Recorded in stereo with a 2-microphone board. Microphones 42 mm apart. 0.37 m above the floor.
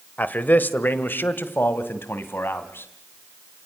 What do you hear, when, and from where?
0.2 s a man speaking: 45° left (ahead or behind), 1.2 m; by 2.9 s 70° left (ahead or behind), 2.5 m